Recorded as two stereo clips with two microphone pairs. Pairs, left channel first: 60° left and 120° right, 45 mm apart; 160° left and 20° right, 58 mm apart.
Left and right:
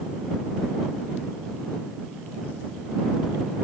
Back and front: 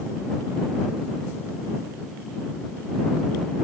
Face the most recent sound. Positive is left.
No sound to turn to.